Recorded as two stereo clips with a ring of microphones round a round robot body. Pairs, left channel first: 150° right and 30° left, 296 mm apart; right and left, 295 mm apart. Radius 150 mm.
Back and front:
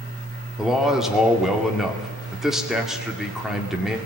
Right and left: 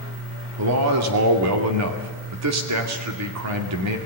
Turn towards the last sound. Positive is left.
turn(degrees=120)